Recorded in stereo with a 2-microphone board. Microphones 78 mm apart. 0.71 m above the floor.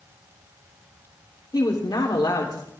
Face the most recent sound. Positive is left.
turn(degrees=55)  # may be behind; listen again after turning